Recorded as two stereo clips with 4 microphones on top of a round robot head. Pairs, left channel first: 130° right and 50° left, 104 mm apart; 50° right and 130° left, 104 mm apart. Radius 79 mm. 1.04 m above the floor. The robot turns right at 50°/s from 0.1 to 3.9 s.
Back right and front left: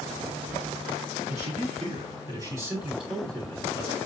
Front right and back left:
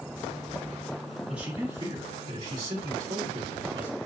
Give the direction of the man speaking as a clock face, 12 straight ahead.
10 o'clock.